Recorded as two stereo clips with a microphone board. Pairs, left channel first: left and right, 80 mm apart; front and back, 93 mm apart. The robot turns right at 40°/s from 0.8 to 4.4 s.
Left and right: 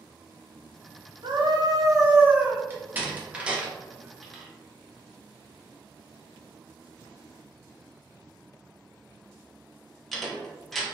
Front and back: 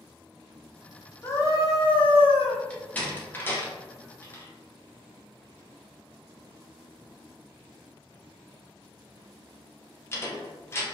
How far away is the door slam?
About 0.5 m.